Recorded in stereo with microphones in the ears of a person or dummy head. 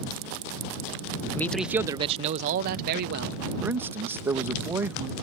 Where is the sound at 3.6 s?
10° right (ahead or behind).